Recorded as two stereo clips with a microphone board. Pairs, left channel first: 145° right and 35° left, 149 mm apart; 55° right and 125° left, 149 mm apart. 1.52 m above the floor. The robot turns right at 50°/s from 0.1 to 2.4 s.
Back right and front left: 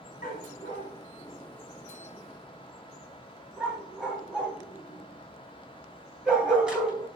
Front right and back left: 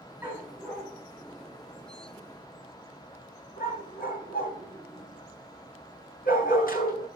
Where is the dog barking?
160° right, 4.5 m; by 7.1 s 50° right, 4.5 m.